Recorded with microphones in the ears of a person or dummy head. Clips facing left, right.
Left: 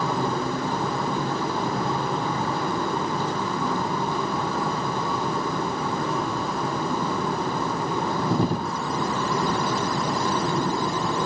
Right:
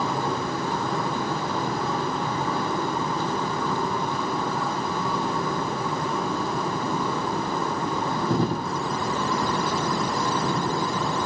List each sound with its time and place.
Only background noise.